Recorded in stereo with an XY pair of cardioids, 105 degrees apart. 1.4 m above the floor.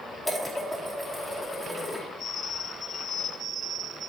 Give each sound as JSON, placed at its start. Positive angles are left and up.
{"t": 0.2, "sound": "dishes clattering", "azimuth_deg": 5, "distance_m": 2.0}